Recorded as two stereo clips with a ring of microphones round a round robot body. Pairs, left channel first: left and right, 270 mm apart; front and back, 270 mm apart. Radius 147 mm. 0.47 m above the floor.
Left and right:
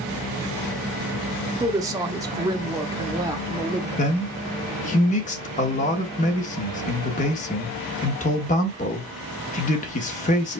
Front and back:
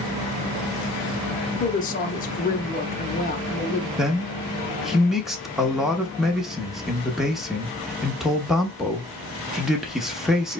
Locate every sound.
1.6 s a woman speaking: 25° right, 0.8 m
4.0 s a man speaking: 95° left, 1.0 m